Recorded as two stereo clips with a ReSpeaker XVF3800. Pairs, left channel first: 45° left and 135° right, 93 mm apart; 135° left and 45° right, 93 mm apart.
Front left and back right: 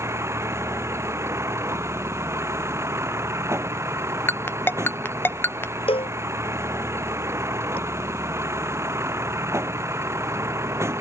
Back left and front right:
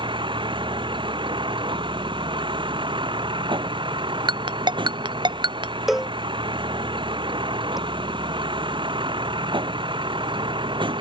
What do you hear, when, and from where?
0.0 s a vehicle: 75° right
4.3 s a ringtone: 20° right
5.9 s a cowbell: 40° left